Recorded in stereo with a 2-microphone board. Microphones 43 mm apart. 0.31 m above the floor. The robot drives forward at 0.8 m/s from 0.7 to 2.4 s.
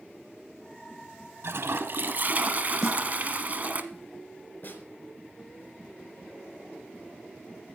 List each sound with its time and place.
1.4 s a toilet flushing: 70° right (ahead or behind), 0.7 m; by 3.8 s 40° right (ahead or behind), 1.0 m
2.8 s a snare drum: 5° left (ahead or behind), 1.1 m
4.6 s a snare drum: 40° left (ahead or behind), 3.5 m